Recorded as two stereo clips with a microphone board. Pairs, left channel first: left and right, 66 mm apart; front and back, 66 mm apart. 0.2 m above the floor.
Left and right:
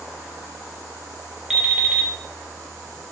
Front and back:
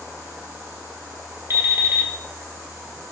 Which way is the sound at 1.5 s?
165° right.